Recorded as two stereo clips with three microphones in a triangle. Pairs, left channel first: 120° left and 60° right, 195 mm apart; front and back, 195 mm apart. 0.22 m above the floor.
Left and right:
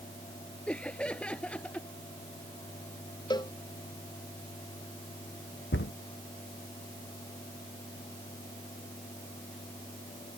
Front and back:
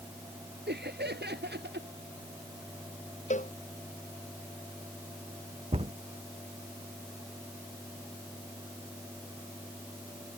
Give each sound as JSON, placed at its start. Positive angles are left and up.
{"t": 0.7, "sound": "laughter", "azimuth_deg": -155}
{"t": 3.3, "sound": "a cowbell", "azimuth_deg": 50}
{"t": 5.7, "sound": "a cupboard door", "azimuth_deg": 120}